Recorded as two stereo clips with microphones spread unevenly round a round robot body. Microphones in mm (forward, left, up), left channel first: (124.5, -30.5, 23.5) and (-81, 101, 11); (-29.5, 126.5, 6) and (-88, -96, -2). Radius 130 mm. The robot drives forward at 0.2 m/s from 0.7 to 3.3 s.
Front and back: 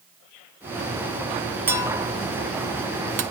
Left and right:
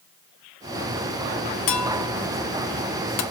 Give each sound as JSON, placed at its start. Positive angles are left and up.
{"t": 1.7, "sound": "a clink", "azimuth_deg": 65, "distance_m": 0.5}